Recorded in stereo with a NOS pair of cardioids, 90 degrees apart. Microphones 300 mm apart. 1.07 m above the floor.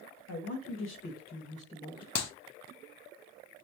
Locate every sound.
0.3 s a man speaking: 65° left, 1.1 m; by 2.0 s 15° left, 1.3 m
2.1 s a clap: 65° left, 0.7 m